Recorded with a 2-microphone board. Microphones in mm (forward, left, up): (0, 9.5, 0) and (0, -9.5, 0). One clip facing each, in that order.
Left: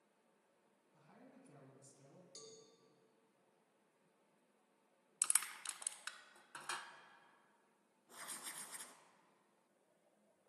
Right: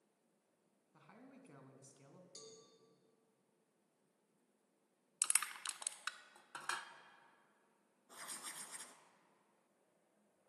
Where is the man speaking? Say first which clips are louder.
Right 3 dB; 45° right (ahead or behind), 1.8 m.